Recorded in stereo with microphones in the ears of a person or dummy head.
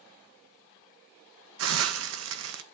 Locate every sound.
1.6 s a hiss: 70° right (ahead or behind), 1.3 m